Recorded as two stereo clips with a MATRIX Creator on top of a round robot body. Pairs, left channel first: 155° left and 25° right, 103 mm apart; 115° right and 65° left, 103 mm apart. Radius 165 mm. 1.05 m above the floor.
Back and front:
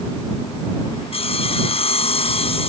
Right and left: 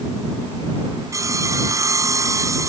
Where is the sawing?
130° left.